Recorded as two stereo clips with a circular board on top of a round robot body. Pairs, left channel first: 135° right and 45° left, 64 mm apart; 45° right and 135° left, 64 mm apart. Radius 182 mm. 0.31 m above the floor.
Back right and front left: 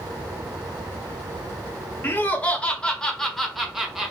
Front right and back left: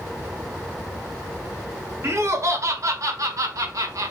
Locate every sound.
2.0 s laughter: 170° left, 1.8 m; by 4.1 s 125° left, 1.8 m